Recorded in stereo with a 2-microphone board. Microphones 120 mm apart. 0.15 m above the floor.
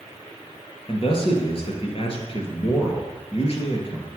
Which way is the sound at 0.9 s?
55° left (ahead or behind).